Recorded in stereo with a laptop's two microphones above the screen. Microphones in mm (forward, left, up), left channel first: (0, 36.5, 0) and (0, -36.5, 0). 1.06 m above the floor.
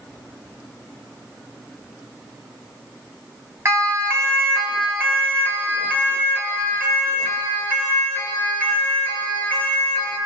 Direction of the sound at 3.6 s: 40° right (ahead or behind).